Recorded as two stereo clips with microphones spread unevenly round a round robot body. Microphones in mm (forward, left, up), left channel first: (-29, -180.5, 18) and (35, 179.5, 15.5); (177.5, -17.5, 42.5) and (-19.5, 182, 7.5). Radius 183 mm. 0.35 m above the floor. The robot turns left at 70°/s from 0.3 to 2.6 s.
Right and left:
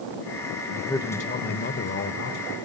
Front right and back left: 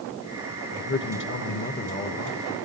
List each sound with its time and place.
0.7 s a man speaking: 10° right, 1.4 m; by 2.5 s 135° right, 1.4 m